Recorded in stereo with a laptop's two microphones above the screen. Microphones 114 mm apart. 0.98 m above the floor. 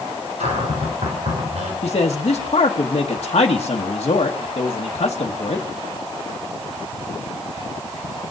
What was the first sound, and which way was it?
A cupboard door, 75° right (ahead or behind).